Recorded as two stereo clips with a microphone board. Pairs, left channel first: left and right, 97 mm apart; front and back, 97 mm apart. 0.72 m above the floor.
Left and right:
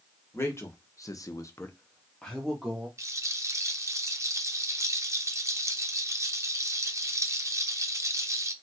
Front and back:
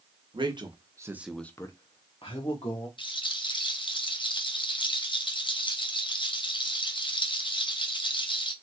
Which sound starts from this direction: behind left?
A man speaking, at 0.3 s.